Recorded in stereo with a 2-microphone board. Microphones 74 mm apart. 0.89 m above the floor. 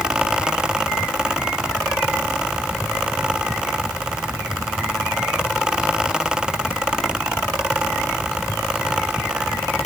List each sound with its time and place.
Only background noise.